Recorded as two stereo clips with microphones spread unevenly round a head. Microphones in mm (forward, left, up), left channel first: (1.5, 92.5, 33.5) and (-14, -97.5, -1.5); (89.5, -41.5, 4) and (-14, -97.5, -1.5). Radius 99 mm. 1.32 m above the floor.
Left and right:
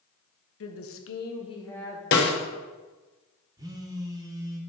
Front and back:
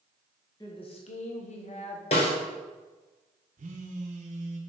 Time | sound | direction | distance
0.6 | a woman speaking | 100° left | 1.1 m
2.1 | a snare drum | 70° left | 1.1 m
3.6 | a phone buzzing | 170° right | 0.8 m